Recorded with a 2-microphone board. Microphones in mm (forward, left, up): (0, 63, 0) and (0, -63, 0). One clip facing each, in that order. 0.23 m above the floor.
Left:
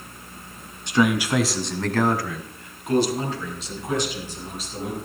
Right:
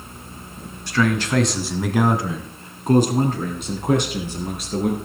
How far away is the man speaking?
About 2.5 m.